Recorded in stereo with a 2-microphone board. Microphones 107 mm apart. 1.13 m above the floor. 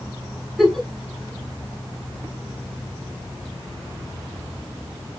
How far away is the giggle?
About 3 m.